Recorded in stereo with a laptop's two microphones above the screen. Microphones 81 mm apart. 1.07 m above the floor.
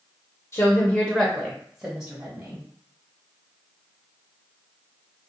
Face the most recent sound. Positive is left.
turn(degrees=-35)  # may be behind; listen again after turning